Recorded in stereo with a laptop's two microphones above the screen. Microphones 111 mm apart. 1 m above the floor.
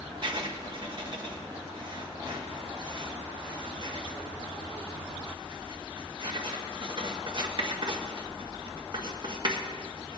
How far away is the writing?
About 1.6 m.